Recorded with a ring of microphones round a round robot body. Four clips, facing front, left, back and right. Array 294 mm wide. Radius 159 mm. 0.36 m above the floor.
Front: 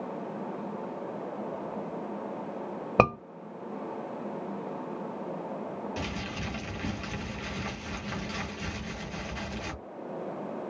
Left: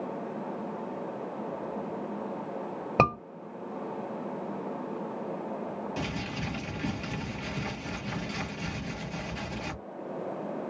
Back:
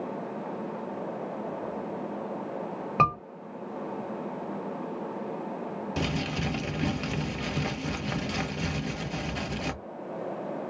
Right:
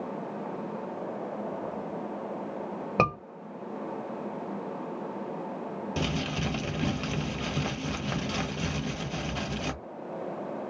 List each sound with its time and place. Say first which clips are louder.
3.0 s a scream: left 2 dB, front 1 dB; 10° left, 1.8 m
6.0 s crumpling: right 3 dB, back 5 dB; 130° right, 1.3 m